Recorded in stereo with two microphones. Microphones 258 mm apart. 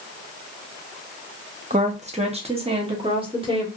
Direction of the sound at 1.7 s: 30° right (ahead or behind).